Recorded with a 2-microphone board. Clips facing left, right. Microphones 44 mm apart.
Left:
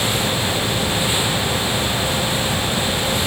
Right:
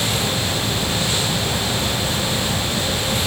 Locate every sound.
Only background noise.